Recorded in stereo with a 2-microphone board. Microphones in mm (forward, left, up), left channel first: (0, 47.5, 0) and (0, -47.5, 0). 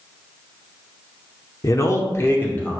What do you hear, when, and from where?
1.6 s a man speaking: 35° left (ahead or behind), 0.9 m; by 2.8 s 15° left (ahead or behind), 1.1 m